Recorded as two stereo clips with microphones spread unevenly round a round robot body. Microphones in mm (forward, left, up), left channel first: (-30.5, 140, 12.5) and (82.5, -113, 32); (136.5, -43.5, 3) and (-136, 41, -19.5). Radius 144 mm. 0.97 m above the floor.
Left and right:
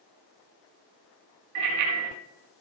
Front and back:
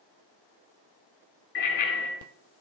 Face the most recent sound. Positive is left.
turn(degrees=-70)